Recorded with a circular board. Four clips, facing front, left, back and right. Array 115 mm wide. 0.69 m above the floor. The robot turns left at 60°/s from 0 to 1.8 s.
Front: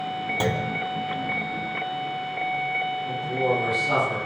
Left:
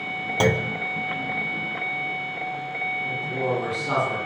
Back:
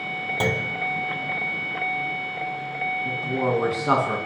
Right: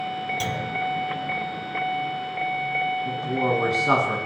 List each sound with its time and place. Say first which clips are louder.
0.4 s a clunk: left 6 dB, even; 95° left, 1.3 m; by 0.8 s 75° left, 1.3 m
3.0 s a man speaking: right 2 dB, back 1 dB; 145° right, 9 m